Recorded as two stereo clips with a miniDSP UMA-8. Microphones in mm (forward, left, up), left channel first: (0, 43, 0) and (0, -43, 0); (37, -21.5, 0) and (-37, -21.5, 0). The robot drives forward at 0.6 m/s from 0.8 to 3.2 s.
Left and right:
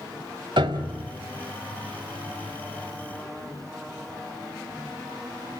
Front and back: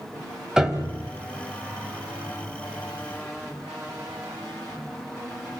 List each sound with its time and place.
0.6 s a piano: 100° right, 1.5 m; by 1.1 s 105° right, 1.5 m